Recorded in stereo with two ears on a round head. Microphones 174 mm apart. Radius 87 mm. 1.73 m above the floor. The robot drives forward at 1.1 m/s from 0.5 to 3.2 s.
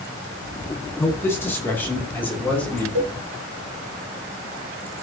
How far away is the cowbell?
About 1.6 m.